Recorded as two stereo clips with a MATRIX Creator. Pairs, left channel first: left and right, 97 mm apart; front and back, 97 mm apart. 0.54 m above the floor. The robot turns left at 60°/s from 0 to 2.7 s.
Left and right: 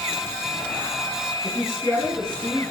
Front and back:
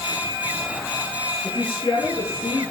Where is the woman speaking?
35° left, 6.5 m; by 2.7 s 40° right, 6.5 m.